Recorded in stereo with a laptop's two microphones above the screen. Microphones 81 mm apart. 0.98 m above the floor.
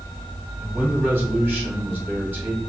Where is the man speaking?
25° right (ahead or behind), 2 m.